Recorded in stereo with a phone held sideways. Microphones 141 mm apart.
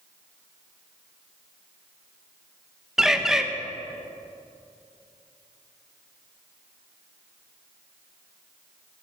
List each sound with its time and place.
3.0 s a bird: 5° right (ahead or behind), 0.9 m